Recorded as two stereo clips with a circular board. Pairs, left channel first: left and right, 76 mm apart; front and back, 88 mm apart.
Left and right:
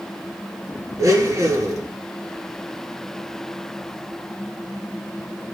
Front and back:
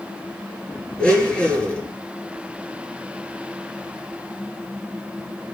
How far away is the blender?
About 1.7 m.